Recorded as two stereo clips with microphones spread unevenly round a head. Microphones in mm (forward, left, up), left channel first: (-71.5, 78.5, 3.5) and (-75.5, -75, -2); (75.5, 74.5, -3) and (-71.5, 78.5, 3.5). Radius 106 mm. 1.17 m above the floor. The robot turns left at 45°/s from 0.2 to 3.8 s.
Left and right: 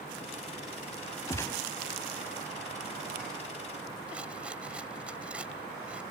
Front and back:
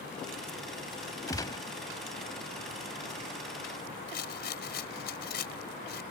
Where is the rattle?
5° right.